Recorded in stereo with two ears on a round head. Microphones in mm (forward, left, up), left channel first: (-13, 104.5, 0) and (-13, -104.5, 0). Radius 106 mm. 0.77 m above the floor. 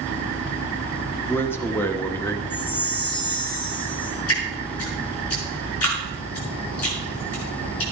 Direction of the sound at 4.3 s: 65° left (ahead or behind).